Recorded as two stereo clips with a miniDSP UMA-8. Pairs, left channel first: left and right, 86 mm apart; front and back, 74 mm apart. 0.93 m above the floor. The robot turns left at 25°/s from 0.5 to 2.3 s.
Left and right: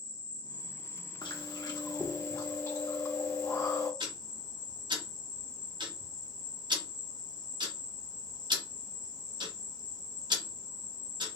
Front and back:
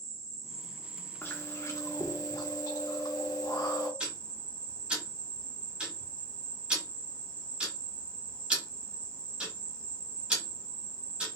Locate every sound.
0.0 s an insect: 25° right, 2 m; by 11.4 s 70° right, 2 m
1.2 s chewing: 60° left, 1.0 m; by 3.9 s 35° left, 1.0 m
4.0 s ticking: 105° right, 1.6 m